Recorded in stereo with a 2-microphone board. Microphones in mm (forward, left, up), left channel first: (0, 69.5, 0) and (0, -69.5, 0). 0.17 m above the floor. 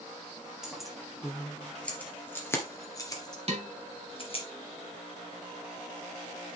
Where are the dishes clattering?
50° right (ahead or behind), 3 m.